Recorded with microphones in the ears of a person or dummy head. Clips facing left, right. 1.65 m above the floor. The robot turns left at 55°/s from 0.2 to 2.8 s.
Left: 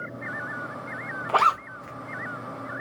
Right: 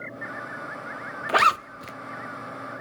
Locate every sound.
1.3 s a zipper: 20° right (ahead or behind), 0.6 m; by 1.9 s 55° right (ahead or behind), 0.6 m